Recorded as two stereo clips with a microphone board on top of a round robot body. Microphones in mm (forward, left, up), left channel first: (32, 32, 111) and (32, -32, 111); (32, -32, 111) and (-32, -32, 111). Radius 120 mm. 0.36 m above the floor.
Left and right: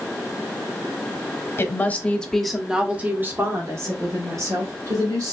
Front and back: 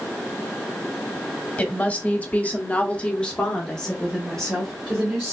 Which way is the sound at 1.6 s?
55° left.